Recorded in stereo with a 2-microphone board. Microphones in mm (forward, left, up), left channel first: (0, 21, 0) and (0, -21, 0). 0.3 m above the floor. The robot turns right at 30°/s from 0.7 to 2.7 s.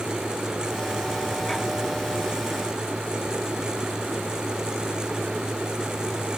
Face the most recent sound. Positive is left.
No sound to turn to.